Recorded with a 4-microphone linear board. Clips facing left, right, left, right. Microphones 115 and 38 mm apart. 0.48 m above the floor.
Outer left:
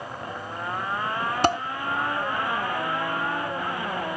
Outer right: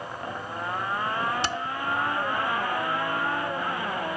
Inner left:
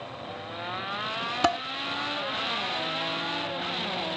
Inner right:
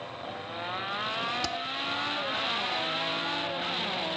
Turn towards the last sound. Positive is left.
turn(degrees=50)  # may be behind; listen again after turning